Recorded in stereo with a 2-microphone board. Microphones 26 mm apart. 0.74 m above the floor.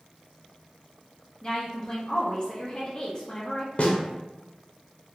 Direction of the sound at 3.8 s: 50° left (ahead or behind).